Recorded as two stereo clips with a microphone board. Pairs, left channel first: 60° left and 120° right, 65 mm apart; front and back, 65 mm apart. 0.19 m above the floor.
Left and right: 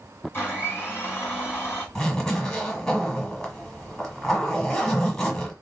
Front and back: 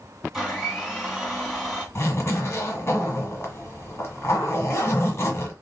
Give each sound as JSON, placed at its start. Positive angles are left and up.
{"t": 0.3, "sound": "a blender", "azimuth_deg": 105, "distance_m": 1.7}
{"t": 1.9, "sound": "a zipper", "azimuth_deg": -10, "distance_m": 1.0}